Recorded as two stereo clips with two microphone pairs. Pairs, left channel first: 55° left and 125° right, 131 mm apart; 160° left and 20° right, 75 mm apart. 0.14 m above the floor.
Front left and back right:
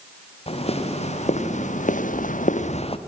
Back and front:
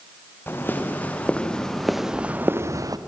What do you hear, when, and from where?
0.5 s footsteps: 95° left, 3.5 m; by 3.0 s 10° left, 1.5 m